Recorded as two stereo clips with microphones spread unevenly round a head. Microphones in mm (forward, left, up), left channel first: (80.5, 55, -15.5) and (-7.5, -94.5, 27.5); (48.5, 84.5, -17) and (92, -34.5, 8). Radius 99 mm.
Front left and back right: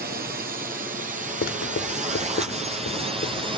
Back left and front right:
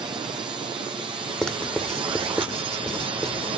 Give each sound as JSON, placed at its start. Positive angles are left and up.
{"t": 0.0, "sound": "a drone", "azimuth_deg": -125}
{"t": 1.4, "sound": "writing", "azimuth_deg": 20}